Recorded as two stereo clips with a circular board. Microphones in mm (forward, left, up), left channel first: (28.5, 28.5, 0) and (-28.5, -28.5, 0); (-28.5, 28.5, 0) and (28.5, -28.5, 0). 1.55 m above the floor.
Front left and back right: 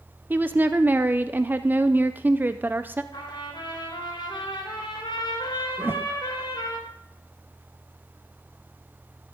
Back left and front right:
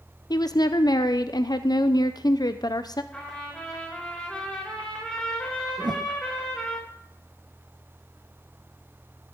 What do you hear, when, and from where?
0.3 s a woman speaking: 160° left, 0.5 m
3.1 s a trumpet: 60° left, 4 m
5.8 s a whoosh: 75° right, 0.5 m